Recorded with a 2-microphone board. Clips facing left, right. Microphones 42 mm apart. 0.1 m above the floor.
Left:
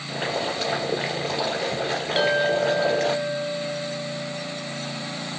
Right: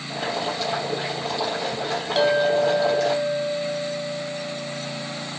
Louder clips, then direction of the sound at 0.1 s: Even; 40° left (ahead or behind).